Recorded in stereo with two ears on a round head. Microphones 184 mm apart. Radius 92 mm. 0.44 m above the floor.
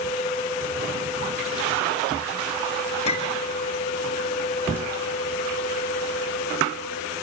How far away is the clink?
About 5.5 m.